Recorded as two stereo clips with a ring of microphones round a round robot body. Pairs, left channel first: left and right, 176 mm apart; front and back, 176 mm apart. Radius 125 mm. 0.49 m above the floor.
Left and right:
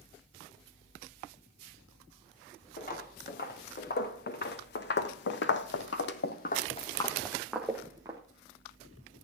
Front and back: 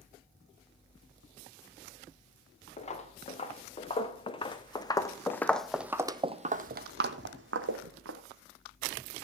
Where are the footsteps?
55° left, 3 m; by 8.2 s 165° right, 1.7 m.